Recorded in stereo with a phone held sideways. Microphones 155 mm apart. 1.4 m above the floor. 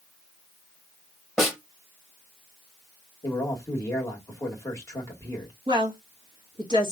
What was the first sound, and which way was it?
A snare drum, centre (ahead or behind).